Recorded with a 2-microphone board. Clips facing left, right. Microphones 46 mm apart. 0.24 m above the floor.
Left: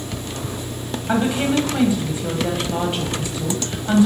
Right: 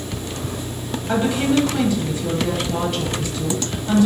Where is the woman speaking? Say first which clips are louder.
Right 1 dB; 20° left (ahead or behind), 1.0 m.